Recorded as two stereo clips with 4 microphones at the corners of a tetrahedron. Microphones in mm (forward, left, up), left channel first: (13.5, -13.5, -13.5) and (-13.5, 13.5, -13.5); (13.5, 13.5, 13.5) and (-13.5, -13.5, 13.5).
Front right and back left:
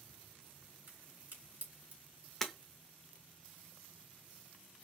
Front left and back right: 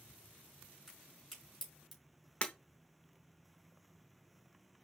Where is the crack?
135° left, 3 m.